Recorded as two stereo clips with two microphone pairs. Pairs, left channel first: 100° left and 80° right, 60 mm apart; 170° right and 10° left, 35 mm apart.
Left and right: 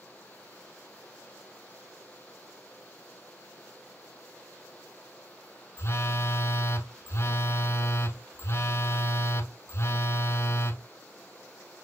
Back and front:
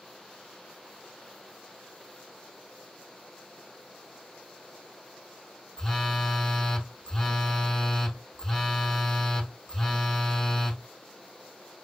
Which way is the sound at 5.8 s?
115° left.